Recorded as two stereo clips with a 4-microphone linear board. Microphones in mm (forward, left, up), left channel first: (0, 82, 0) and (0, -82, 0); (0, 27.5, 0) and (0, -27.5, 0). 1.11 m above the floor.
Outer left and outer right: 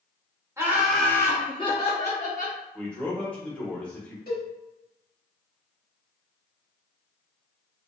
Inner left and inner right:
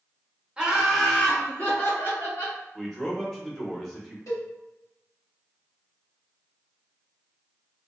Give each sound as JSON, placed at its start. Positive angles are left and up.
{"t": 0.6, "sound": "laughter", "side_deg": -15, "distance_m": 0.8}
{"t": 2.8, "sound": "a man speaking", "side_deg": 10, "distance_m": 1.0}
{"t": 4.3, "sound": "a cowbell", "side_deg": 70, "distance_m": 1.3}